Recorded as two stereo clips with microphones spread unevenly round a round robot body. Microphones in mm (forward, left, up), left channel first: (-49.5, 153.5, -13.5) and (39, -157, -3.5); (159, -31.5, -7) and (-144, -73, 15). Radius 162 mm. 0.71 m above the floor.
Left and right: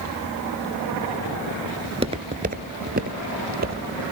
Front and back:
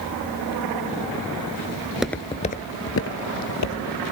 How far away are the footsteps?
About 0.7 m.